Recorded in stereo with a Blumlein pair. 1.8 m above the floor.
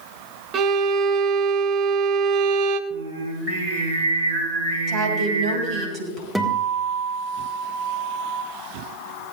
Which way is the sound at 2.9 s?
45° right.